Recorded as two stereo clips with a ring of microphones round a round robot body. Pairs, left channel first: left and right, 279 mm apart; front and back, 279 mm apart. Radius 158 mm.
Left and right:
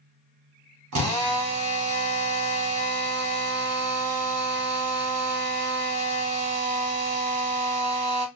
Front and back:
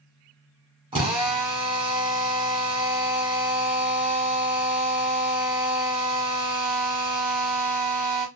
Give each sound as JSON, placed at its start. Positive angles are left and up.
{"t": 0.9, "sound": "a drill", "azimuth_deg": -110, "distance_m": 1.2}